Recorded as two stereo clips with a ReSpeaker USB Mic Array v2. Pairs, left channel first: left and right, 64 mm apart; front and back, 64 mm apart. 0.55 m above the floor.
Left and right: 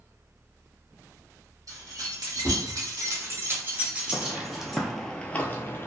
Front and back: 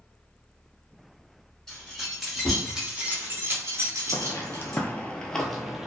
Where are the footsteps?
30° right, 0.7 m; by 5.9 s 100° left, 0.6 m.